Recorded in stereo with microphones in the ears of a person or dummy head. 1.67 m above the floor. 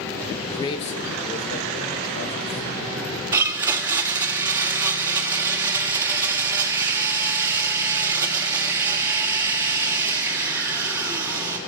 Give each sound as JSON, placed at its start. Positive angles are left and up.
{"t": 0.4, "sound": "a man speaking", "side_deg": 5, "distance_m": 0.7}
{"t": 3.3, "sound": "a blender", "side_deg": -15, "distance_m": 0.8}